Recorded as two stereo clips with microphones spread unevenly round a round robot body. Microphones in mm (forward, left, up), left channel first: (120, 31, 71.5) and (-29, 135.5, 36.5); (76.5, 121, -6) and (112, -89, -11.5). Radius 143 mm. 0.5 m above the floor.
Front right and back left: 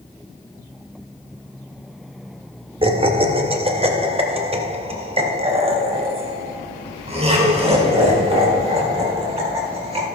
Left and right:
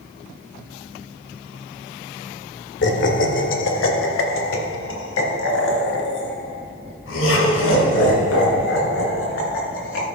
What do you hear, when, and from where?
2.8 s laughter: 105° left, 1.7 m; by 10.1 s 90° left, 6.5 m